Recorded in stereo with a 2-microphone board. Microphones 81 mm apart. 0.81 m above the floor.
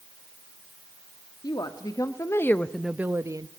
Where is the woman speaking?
60° left (ahead or behind), 1.6 m; by 3.5 s 50° right (ahead or behind), 0.9 m.